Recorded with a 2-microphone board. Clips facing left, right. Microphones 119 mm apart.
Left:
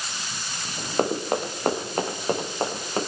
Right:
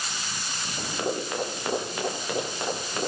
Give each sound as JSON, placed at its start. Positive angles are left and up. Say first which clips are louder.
{"t": 1.0, "sound": "running footsteps", "louder": "left 5 dB", "side_deg": 50, "distance_m": 4.0}